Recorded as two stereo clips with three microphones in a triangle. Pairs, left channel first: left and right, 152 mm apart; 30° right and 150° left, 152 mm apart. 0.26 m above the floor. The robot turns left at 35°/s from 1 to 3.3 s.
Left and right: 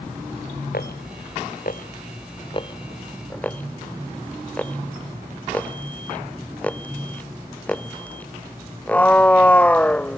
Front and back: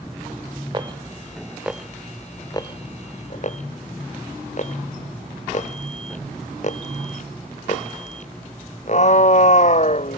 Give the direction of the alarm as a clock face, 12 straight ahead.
9 o'clock.